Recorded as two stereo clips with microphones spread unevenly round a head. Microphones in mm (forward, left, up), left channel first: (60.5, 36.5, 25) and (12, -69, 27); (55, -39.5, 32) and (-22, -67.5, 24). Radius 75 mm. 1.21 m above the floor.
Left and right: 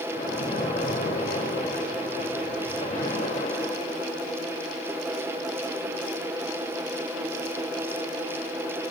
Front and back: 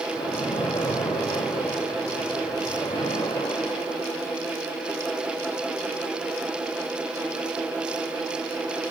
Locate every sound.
0.1 s a splash: 75° left, 3 m